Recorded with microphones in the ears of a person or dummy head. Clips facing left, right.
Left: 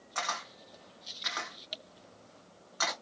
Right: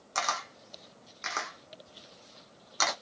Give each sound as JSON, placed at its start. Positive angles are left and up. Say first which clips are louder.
{"t": 0.1, "sound": "a camera shutter", "louder": "right 4 dB", "side_deg": -50, "distance_m": 0.9}